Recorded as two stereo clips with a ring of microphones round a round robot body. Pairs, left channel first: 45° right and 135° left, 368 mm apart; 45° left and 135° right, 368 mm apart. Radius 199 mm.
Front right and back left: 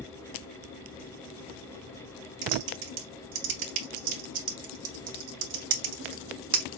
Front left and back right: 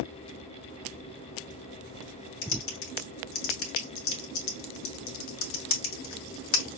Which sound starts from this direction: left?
Typing on a keyboard, at 2.4 s.